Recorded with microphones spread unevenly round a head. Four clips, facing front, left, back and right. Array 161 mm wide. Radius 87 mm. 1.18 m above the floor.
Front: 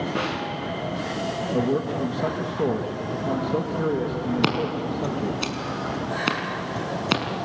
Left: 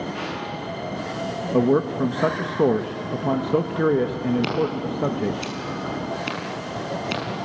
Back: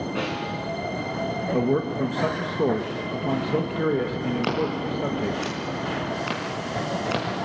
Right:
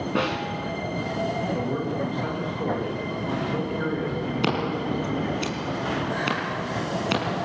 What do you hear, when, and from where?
0.1 s a snare drum: 65° right, 5.5 m
1.5 s a man speaking: 95° left, 1.5 m
4.4 s scissors: 5° right, 5.5 m